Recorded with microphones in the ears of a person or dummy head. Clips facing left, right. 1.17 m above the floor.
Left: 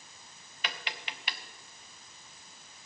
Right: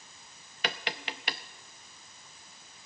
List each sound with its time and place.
0.6 s tapping: 35° right (ahead or behind), 0.5 m